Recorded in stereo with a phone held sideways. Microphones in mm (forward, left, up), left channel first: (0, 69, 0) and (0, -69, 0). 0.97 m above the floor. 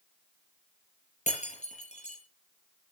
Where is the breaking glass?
55° left (ahead or behind), 8.5 m.